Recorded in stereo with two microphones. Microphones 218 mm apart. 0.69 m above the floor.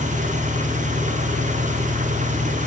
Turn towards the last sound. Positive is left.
turn(degrees=-35)  # may be behind; listen again after turning